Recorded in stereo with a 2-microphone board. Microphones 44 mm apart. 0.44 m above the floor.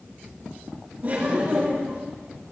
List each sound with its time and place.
1.0 s laughter: 45° right (ahead or behind), 3.5 m